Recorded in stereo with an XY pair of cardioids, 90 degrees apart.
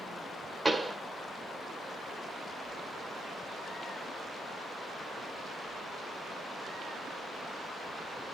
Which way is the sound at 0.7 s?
15° right.